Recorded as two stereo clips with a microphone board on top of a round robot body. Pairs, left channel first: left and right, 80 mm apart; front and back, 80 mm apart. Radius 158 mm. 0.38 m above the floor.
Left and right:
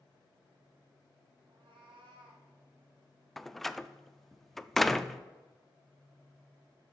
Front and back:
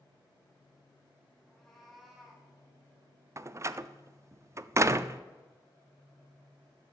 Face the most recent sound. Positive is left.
turn(degrees=175)